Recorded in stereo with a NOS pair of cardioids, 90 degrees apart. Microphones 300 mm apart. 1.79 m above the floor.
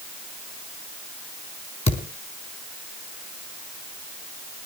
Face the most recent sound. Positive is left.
turn(degrees=20)